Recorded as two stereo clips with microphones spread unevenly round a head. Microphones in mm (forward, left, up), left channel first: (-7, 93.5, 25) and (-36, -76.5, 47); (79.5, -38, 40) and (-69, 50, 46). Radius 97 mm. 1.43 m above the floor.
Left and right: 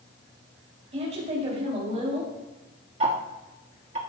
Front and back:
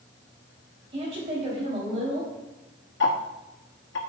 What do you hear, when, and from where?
0.9 s a woman speaking: 150° right, 3 m
3.0 s ticking: 50° right, 1.3 m